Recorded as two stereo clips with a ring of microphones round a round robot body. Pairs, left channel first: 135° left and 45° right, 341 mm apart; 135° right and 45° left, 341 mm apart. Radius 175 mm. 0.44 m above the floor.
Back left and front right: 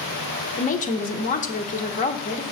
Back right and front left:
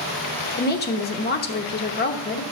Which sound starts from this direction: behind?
A woman speaking, at 0.6 s.